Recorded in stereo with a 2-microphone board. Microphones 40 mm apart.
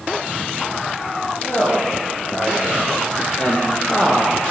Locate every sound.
1.4 s a woman speaking: 35° left (ahead or behind), 6.5 m; by 4.5 s 25° left (ahead or behind), 4 m